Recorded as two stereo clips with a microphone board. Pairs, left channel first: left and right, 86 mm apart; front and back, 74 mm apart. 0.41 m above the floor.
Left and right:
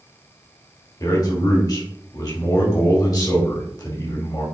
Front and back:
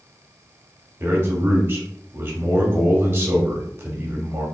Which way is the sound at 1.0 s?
125° left.